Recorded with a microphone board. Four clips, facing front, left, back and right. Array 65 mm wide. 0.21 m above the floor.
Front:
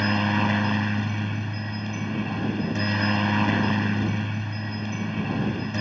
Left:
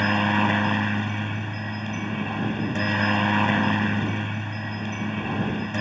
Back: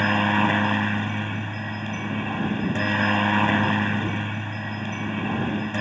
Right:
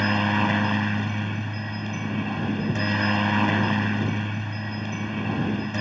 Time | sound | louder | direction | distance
0.0 | a helicopter | left 1 dB, back 3 dB | 160° left | ?